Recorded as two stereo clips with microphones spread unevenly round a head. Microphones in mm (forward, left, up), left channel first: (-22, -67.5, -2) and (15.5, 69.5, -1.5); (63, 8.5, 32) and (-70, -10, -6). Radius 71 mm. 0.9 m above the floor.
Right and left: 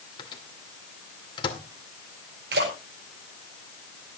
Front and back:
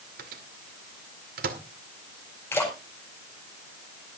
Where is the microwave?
165° right, 2 m.